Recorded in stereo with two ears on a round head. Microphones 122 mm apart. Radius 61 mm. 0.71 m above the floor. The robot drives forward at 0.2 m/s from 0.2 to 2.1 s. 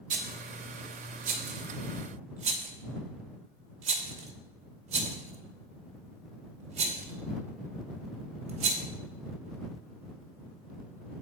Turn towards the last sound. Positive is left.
turn(degrees=-55)  # may be behind; listen again after turning